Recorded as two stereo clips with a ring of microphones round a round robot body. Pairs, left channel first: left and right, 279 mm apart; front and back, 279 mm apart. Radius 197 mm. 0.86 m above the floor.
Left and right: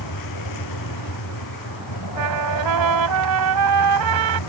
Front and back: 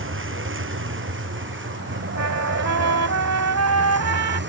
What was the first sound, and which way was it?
A vehicle, 135° left.